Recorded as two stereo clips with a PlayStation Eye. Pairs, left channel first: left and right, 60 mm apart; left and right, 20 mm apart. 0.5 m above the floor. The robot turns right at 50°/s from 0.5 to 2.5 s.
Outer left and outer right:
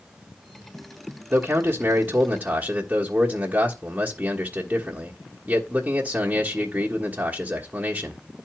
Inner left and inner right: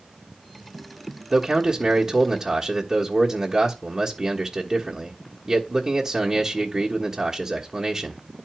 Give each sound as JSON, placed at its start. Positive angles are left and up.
{"t": 1.3, "sound": "a man speaking", "azimuth_deg": -130, "distance_m": 1.4}